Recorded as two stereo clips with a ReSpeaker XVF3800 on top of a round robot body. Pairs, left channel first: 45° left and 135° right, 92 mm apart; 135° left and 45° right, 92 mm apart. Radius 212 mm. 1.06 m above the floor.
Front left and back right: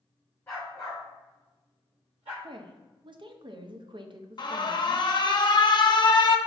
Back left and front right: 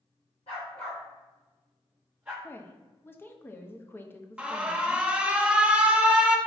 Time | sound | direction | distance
0.5 | a dog barking | 110° left | 0.5 m
2.4 | a woman speaking | 160° right | 0.7 m
4.4 | an alarm | 30° left | 0.7 m